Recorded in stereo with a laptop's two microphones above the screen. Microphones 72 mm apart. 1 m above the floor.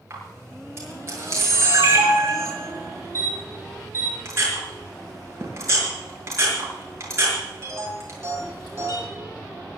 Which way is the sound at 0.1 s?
40° right (ahead or behind).